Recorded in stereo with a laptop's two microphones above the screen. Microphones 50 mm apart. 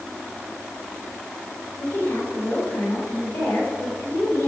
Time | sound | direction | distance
1.8 | a woman speaking | 60° left (ahead or behind) | 4.5 m